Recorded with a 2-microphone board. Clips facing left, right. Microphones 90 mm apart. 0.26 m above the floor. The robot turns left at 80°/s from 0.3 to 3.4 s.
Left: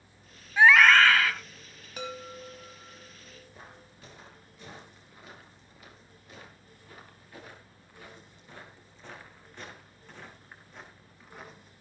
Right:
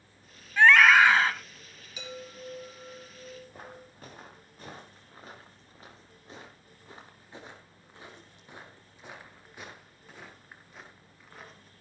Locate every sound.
0.6 s a scream: 20° left, 1.6 m; by 1.3 s 40° right, 1.6 m
2.0 s a chime: 70° left, 3.5 m; by 3.9 s 45° right, 3.5 m
3.5 s footsteps: 50° right (ahead or behind), 5 m; by 11.7 s 5° left (ahead or behind), 5 m